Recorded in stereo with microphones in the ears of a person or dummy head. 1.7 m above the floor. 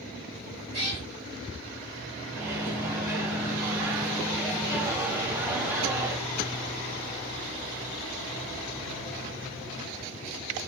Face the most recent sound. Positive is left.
turn(degrees=-10)  # may be behind; listen again after turning